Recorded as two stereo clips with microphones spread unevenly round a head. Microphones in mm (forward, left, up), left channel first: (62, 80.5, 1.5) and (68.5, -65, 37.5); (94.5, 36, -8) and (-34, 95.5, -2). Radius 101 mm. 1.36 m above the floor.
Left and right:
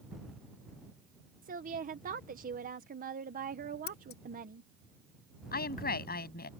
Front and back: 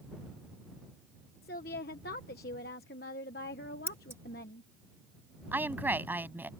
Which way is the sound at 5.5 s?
80° left.